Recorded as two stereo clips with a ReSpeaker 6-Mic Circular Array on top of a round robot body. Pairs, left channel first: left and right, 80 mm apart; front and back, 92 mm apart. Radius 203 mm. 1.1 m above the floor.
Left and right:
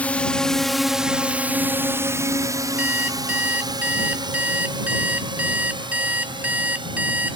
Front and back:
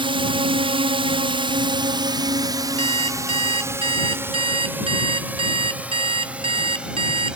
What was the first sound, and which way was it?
A drone, 160° left.